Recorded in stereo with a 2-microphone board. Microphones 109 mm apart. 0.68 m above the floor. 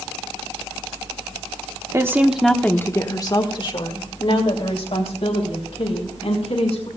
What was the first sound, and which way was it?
A woman speaking, 25° right (ahead or behind).